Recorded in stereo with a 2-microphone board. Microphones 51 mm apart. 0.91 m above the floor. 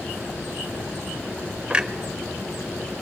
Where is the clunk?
20° right (ahead or behind), 0.6 m.